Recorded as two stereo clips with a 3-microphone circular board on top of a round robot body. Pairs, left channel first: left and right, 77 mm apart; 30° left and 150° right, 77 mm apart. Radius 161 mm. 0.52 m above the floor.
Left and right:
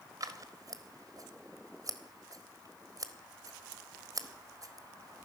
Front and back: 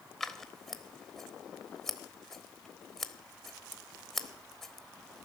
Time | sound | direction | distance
0.2 | scissors | 55° right | 1.6 m